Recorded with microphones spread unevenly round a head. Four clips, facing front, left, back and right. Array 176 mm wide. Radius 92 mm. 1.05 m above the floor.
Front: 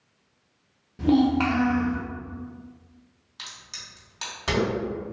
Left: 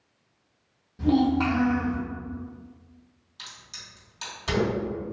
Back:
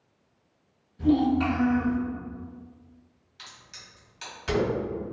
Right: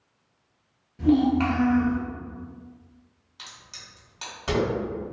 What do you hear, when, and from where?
1.0 s a child speaking: straight ahead, 1.2 m
3.4 s a crack: 20° right, 1.7 m